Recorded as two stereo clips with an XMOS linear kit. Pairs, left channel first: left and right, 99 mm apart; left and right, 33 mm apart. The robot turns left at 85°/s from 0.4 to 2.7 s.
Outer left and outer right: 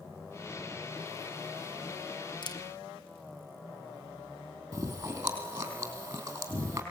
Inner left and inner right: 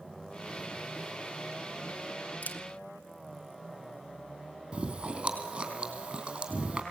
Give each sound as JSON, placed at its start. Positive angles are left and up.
{"t": 2.4, "sound": "a camera shutter", "side_deg": 50, "distance_m": 1.2}
{"t": 4.7, "sound": "chewing", "side_deg": -25, "distance_m": 3.5}